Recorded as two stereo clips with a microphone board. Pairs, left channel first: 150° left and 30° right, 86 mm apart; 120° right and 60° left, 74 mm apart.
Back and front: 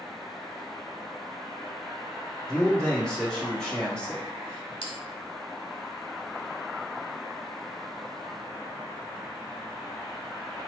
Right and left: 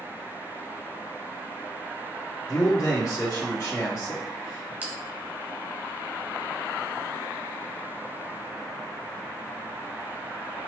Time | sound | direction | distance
2.5 | a man speaking | 130° right | 1.5 m
4.8 | a bell | 130° left | 1.1 m